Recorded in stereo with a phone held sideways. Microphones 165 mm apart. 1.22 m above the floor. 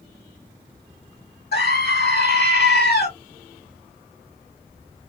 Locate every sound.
1.5 s a scream: 75° left (ahead or behind), 1.7 m